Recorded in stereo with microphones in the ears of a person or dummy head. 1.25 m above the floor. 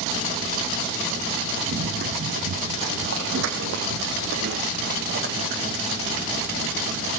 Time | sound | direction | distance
1.7 | running footsteps | 60° right (ahead or behind) | 4 m